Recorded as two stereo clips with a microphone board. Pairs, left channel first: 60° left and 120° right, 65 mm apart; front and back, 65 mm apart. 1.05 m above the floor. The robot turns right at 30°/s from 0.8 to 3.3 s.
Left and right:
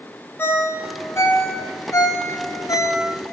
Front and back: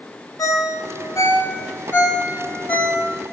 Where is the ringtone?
10° left, 0.6 m; by 3.0 s 75° left, 0.6 m.